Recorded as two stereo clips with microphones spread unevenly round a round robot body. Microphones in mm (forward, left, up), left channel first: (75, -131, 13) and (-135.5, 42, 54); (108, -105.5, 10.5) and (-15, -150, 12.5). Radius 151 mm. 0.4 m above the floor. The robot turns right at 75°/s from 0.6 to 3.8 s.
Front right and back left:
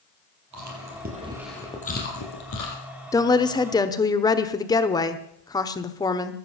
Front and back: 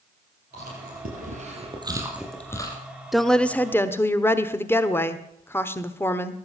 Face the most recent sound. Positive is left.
turn(degrees=-20)